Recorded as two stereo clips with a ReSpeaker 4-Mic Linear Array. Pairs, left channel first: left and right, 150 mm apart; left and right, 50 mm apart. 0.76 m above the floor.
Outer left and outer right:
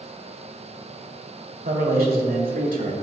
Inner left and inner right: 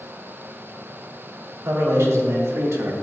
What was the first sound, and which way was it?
A man speaking, 80° right.